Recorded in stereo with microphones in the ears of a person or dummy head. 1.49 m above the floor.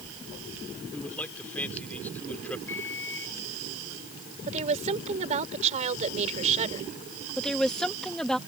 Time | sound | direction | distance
0.9 | a man speaking | 10° left (ahead or behind) | ?
2.7 | a microwave | 10° left (ahead or behind) | ?
4.5 | a woman speaking | 35° right (ahead or behind) | ?
7.4 | a woman speaking | centre (ahead or behind) | ?